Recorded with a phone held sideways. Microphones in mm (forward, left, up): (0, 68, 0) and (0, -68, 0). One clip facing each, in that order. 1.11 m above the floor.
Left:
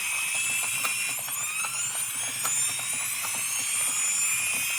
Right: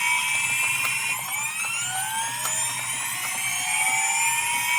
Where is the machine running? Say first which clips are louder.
Right 11 dB; 85° right.